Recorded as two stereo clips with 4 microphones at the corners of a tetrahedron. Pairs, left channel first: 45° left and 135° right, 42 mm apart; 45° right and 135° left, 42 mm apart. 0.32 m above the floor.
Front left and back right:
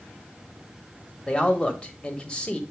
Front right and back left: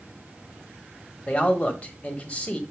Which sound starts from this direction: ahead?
A man speaking, at 1.3 s.